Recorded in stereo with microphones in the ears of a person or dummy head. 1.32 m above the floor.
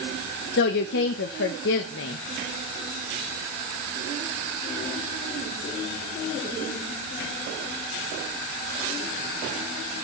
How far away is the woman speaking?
About 1.0 m.